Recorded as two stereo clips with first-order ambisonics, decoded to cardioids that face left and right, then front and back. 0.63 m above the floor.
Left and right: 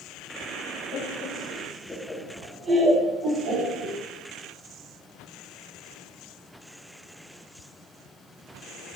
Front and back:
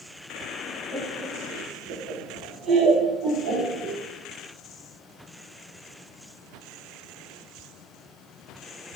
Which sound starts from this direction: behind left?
Laughter, at 0.9 s.